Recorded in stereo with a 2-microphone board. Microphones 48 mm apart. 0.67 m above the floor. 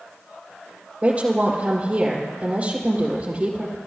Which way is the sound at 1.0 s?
35° right (ahead or behind).